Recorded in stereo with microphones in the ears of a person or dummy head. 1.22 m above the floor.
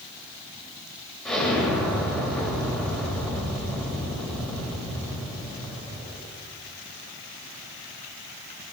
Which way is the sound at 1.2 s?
5° left (ahead or behind).